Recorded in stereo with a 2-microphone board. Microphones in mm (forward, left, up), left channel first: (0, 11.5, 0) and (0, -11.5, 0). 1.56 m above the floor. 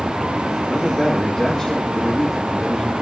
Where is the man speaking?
25° left (ahead or behind), 2 m.